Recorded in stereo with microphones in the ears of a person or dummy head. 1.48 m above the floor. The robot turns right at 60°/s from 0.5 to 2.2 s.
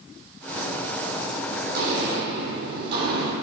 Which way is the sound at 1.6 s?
55° right (ahead or behind).